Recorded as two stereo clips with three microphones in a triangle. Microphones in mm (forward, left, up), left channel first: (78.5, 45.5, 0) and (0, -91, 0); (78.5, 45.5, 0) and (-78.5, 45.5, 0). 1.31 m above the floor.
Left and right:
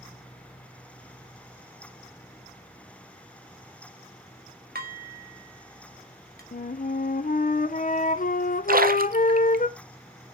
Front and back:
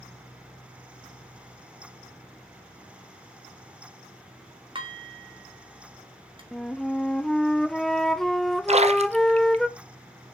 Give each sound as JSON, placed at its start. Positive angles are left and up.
{"t": 4.8, "sound": "dishes clattering", "azimuth_deg": -120, "distance_m": 1.6}
{"t": 6.5, "sound": "a flute", "azimuth_deg": 90, "distance_m": 0.5}
{"t": 8.7, "sound": "a splash", "azimuth_deg": -135, "distance_m": 0.6}